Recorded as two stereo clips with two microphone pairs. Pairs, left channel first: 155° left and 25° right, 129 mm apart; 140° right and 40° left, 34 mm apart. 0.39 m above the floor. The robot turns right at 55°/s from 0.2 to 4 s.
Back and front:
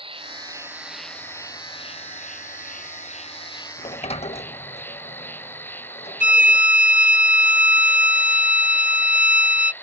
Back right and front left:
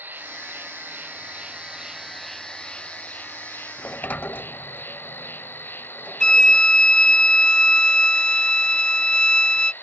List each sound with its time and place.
0.0 s an insect: 20° left; by 9.8 s 130° right
3.8 s a sliding door: straight behind; by 6.6 s 170° right
6.2 s a violin: 155° left